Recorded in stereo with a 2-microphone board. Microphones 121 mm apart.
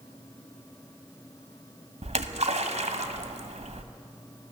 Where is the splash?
70° right (ahead or behind), 1.3 m.